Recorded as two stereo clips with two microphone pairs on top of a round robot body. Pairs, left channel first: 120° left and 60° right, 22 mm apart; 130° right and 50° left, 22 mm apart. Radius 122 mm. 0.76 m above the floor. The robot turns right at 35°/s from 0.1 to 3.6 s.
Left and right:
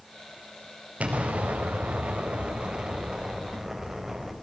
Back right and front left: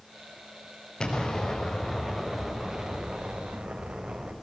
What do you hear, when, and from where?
1.0 s an explosion: 75° right, 5 m; by 4.3 s 15° left, 5 m